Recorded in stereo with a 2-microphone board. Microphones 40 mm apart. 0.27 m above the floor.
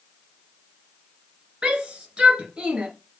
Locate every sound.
1.6 s a shout: 25° right (ahead or behind), 3.5 m